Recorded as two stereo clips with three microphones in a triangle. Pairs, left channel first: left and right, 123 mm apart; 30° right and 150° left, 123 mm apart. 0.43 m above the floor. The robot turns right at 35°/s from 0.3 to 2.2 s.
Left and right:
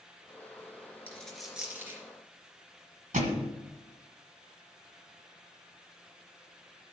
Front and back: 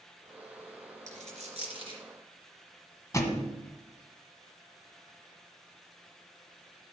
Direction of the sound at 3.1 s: 95° right.